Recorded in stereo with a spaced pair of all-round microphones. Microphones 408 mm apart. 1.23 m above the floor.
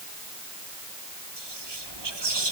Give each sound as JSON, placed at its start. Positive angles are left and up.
{"t": 1.4, "sound": "whispering", "side_deg": -85, "distance_m": 1.1}